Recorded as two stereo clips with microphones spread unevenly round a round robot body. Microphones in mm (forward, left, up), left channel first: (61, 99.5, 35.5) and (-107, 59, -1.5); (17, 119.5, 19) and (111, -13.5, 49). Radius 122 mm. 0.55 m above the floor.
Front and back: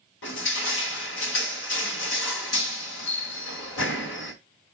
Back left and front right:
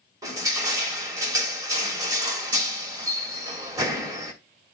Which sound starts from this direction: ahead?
Crushing, at 0.2 s.